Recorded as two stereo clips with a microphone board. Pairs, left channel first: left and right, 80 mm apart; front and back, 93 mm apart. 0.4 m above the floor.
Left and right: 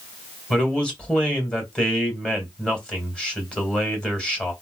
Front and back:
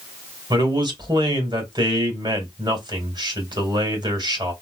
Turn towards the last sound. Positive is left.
turn(degrees=165)